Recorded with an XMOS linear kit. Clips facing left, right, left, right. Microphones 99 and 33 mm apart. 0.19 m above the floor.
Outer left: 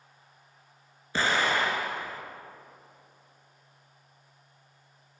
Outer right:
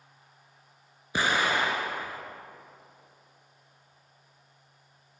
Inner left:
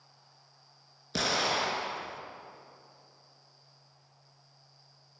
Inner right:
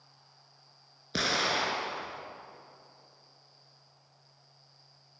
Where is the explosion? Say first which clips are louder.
Even, even; 15° right (ahead or behind), 1.5 m.